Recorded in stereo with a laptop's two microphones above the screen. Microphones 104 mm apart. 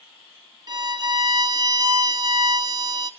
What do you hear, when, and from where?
0.7 s a violin: 35° right (ahead or behind), 1.0 m